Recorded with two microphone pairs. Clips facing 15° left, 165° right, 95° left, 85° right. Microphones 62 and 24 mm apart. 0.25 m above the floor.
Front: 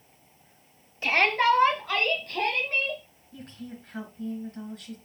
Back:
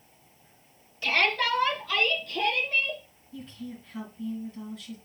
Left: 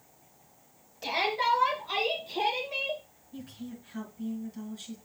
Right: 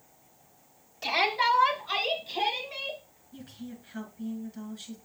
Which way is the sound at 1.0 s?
15° right.